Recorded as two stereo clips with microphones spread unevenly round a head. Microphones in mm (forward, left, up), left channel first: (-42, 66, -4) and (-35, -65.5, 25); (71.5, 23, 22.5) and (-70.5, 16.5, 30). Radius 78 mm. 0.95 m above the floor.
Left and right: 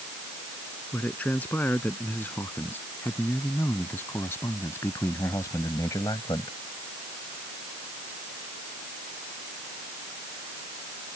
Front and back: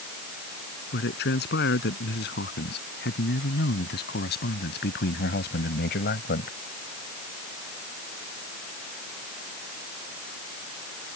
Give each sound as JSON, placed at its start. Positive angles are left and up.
{"t": 0.9, "sound": "a man speaking", "azimuth_deg": 10}